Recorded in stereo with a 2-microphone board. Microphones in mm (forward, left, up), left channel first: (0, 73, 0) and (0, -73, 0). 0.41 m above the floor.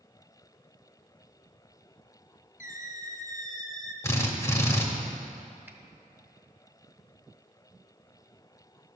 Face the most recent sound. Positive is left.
turn(degrees=-15)  # may be behind; listen again after turning